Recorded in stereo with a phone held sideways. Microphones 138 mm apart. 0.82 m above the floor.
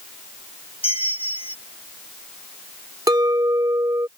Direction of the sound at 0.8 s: 45° left (ahead or behind).